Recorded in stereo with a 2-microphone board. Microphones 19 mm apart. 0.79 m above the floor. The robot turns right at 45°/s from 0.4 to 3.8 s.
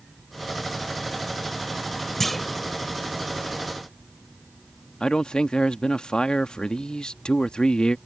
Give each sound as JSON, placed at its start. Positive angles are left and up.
{"t": 2.2, "sound": "a clunk", "side_deg": 15}
{"t": 5.0, "sound": "a man speaking", "side_deg": 50}